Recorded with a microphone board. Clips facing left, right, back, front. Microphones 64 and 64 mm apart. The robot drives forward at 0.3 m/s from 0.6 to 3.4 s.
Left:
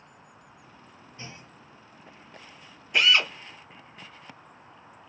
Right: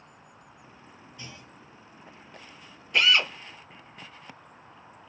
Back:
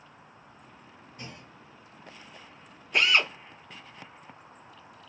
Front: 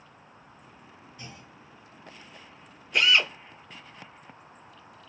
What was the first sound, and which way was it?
A clunk, 145° left.